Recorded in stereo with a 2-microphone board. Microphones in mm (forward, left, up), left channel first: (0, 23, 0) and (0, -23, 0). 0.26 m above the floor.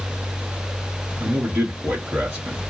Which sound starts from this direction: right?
A man speaking, at 1.2 s.